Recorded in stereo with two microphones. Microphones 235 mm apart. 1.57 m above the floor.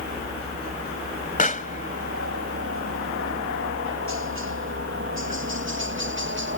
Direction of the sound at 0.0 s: 70° right (ahead or behind).